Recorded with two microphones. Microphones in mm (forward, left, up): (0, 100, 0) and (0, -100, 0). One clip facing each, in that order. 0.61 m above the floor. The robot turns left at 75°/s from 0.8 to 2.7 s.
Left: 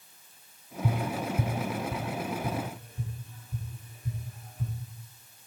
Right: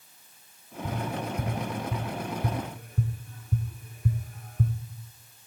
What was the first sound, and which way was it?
Tapping, 70° left (ahead or behind).